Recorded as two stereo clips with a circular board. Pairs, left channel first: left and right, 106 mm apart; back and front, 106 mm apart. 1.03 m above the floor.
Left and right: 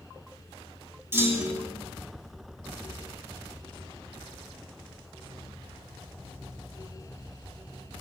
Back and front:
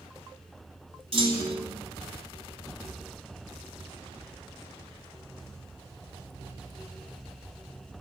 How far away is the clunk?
About 3 m.